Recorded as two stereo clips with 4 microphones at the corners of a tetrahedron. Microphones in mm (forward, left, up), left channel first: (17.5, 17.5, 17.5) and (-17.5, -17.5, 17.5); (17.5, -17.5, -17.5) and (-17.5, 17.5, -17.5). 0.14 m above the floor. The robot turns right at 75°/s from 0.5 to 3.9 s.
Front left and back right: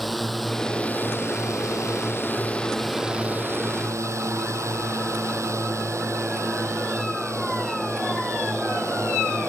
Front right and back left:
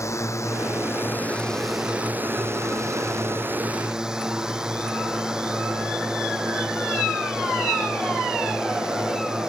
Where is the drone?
45° right; by 9.5 s 150° right.